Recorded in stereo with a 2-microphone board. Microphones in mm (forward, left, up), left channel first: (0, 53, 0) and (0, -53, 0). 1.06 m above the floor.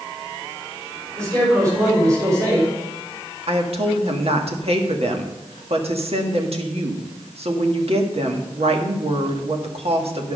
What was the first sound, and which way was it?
A man speaking, 30° right (ahead or behind).